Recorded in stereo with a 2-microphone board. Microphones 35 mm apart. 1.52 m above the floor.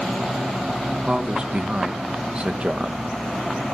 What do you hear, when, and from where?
1.1 s a man speaking: 35° right (ahead or behind), 2 m